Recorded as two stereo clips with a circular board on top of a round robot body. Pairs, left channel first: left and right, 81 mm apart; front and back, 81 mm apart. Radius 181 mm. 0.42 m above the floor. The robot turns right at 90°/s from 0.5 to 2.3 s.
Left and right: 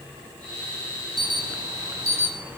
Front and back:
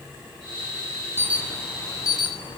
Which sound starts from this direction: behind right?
An alarm, at 1.2 s.